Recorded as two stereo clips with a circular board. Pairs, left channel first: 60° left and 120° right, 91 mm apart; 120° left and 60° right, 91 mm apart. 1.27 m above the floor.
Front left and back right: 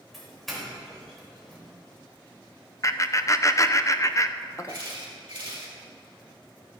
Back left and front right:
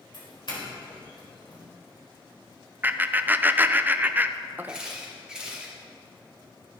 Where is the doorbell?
150° left, 3.5 m.